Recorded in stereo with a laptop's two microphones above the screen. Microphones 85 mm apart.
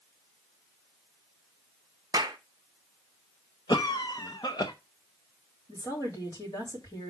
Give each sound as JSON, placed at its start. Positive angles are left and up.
{"t": 2.1, "sound": "a clap", "side_deg": -50, "distance_m": 1.0}
{"t": 3.7, "sound": "a cough", "side_deg": 55, "distance_m": 0.7}
{"t": 5.7, "sound": "a woman speaking", "side_deg": 45, "distance_m": 2.5}